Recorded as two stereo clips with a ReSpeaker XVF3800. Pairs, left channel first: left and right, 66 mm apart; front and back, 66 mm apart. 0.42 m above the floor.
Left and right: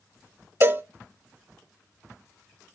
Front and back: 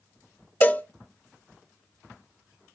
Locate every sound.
0.6 s a cowbell: 55° right, 0.6 m